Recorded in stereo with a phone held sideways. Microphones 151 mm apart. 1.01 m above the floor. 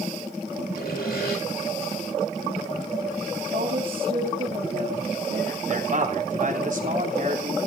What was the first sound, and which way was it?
Sawing, 80° left.